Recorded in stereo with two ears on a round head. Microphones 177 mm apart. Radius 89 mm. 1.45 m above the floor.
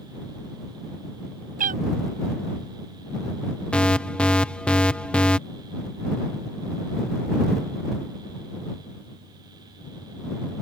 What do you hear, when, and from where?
1.6 s a cat meowing: 45° right (ahead or behind)
3.7 s an alarm: 5° left (ahead or behind)